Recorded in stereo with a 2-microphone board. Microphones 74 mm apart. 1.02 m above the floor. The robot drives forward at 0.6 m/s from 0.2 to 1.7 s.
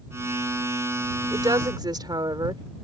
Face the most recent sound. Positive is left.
turn(degrees=-70)  # may be behind; listen again after turning